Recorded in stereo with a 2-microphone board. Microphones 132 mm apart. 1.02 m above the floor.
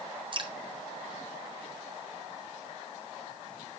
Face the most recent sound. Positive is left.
turn(degrees=-40)  # may be behind; listen again after turning